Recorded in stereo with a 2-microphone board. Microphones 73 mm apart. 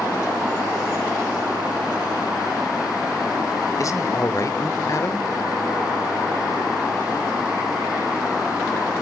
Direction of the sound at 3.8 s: 45° left (ahead or behind).